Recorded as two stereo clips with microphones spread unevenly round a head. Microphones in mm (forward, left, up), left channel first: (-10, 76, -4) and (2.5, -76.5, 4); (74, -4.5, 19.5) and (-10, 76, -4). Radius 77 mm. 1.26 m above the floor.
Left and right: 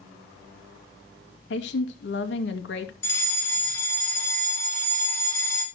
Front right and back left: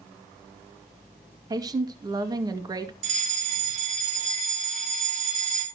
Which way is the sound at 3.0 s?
170° left.